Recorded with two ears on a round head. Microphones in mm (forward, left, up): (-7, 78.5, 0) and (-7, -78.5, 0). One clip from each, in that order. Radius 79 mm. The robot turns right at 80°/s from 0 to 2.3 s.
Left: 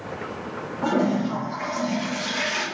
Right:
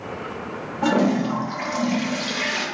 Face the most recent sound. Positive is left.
turn(degrees=-5)